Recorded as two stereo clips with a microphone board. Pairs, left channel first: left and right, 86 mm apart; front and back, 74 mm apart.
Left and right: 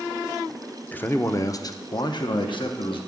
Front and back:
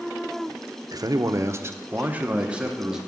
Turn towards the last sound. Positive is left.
turn(degrees=100)